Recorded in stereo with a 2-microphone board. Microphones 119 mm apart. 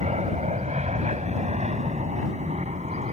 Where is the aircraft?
70° right (ahead or behind).